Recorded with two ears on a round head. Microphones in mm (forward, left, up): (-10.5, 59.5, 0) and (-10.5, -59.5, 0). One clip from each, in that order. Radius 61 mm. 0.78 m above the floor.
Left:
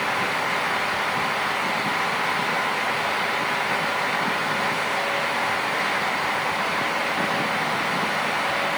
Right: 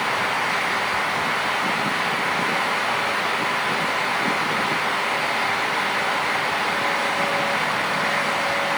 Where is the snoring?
I don't hear snoring.